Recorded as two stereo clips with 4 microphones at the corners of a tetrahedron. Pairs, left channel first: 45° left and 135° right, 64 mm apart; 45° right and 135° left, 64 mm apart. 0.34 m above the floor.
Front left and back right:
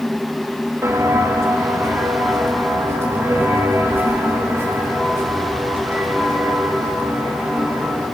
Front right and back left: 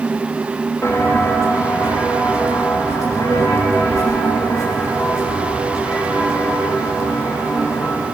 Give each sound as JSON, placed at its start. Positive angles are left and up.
{"t": 0.8, "sound": "footsteps", "azimuth_deg": -90, "distance_m": 5.0}